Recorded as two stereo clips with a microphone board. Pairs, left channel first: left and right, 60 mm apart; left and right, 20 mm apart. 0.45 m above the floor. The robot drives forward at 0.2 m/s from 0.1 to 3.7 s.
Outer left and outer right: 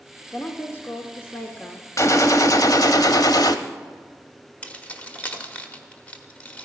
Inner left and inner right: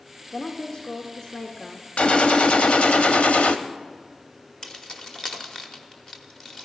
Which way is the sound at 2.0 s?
60° left (ahead or behind).